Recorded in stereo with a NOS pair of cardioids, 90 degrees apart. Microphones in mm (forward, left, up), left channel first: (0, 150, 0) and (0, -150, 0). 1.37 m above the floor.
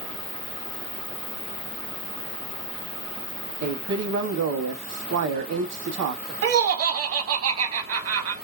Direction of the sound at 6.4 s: 50° right.